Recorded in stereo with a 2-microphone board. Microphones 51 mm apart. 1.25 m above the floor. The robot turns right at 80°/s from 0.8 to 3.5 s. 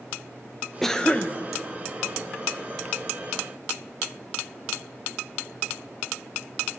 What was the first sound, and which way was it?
A cough, 5° left.